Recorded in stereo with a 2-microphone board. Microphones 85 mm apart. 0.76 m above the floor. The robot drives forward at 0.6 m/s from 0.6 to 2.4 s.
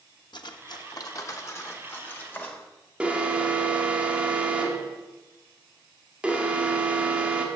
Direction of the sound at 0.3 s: 55° left (ahead or behind).